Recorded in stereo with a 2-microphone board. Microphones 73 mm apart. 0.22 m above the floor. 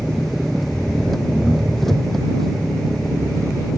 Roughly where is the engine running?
Centre.